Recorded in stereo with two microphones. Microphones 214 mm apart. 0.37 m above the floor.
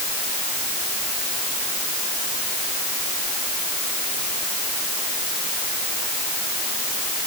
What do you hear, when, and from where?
Only background noise.